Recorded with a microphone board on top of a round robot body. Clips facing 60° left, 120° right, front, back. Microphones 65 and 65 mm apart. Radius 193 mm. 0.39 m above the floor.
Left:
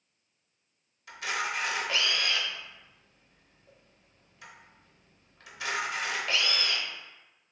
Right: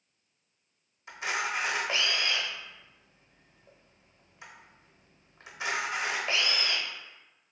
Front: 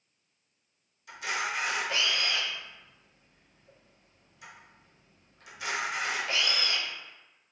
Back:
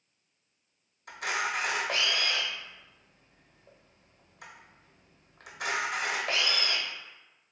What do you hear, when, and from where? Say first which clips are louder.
1.1 s a camera shutter: right 1 dB, back 1 dB; straight behind, 0.9 m